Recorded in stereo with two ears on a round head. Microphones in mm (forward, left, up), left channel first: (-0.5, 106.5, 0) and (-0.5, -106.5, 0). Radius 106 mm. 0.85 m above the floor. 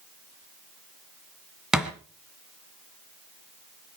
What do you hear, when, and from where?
1.7 s a thud: 5° right (ahead or behind), 1.8 m